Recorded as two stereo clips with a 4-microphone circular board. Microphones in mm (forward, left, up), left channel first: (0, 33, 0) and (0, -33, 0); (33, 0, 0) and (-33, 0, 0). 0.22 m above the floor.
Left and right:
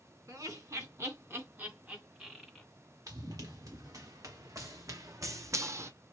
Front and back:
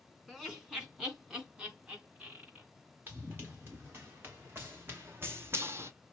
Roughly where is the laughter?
Right.